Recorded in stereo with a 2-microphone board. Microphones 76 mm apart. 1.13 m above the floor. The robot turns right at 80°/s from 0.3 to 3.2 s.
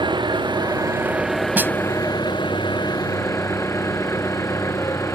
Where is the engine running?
90° right; by 5.2 s 145° left.